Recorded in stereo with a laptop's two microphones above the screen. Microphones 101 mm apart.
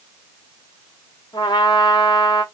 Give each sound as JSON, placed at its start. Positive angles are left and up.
{"t": 1.3, "sound": "a trumpet", "side_deg": 45, "distance_m": 2.0}